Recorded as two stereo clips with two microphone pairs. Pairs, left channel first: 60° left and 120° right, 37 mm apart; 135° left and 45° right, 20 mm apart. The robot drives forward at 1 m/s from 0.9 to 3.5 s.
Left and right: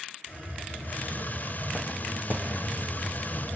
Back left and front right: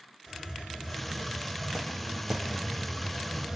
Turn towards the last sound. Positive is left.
turn(degrees=30)